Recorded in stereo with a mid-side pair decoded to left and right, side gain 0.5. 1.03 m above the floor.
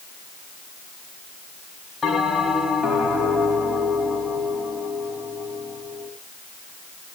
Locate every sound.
2.0 s a bell: 30° left, 5.5 m